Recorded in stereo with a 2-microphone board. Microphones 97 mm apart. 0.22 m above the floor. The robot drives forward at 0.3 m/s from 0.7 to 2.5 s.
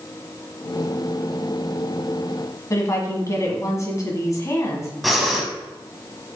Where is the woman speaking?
35° left (ahead or behind), 2.0 m.